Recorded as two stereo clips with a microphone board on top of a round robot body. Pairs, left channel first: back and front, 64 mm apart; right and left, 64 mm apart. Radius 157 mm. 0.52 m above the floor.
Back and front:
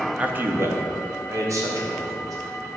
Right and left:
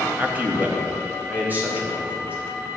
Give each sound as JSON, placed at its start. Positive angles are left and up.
{"t": 0.2, "sound": "a man speaking", "azimuth_deg": 45, "distance_m": 0.9}